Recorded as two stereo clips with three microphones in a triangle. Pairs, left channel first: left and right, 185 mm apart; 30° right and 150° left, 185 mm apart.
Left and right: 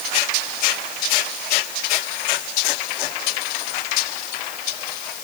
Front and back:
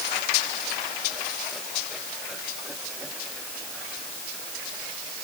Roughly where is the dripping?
No dripping in this recording.